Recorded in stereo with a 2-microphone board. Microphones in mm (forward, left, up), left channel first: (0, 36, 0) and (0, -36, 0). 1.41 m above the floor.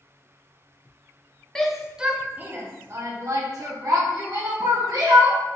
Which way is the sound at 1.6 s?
10° left (ahead or behind).